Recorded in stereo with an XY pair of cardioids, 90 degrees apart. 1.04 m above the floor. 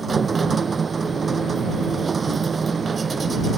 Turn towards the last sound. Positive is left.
turn(degrees=-40)